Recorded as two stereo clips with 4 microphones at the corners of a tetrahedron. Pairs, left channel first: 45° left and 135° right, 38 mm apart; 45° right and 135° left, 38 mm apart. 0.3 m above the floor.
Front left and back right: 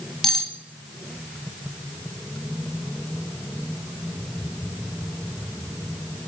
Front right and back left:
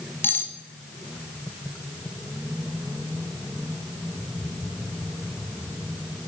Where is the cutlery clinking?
40° right, 1.3 m.